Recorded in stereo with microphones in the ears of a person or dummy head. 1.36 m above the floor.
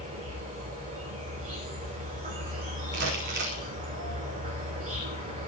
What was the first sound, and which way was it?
An insect, 35° right (ahead or behind).